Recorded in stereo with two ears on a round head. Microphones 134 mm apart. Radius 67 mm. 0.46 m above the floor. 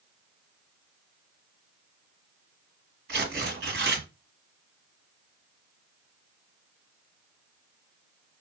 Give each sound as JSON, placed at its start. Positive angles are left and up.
{"t": 3.1, "sound": "tearing paper", "side_deg": -90, "distance_m": 2.0}